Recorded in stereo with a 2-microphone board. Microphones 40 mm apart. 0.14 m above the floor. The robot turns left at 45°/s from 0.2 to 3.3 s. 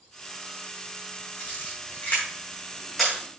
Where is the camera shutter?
70° left (ahead or behind), 5.5 m; by 3.1 s 5° right (ahead or behind), 5.5 m.